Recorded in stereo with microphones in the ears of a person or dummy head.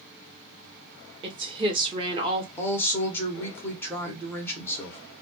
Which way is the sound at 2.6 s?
10° left (ahead or behind).